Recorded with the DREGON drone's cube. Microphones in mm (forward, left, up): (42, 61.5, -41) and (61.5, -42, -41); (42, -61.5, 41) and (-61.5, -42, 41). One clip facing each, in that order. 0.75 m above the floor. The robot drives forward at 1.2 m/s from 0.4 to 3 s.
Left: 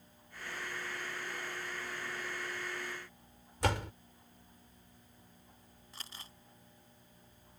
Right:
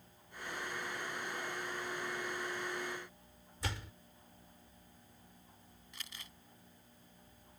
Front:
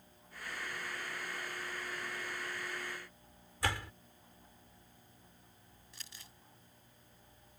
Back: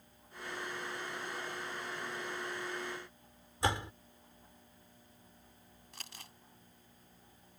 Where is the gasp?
I don't hear a gasp.